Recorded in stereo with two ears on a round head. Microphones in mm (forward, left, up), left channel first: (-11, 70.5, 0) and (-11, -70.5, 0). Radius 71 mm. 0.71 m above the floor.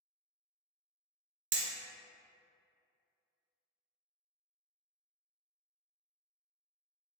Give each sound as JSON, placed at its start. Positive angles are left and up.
{"t": 1.5, "sound": "hammering", "side_deg": -75, "distance_m": 0.7}